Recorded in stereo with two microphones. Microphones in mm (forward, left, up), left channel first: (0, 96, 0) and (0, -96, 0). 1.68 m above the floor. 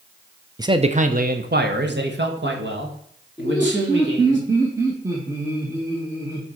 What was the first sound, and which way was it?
A man speaking, 20° right (ahead or behind).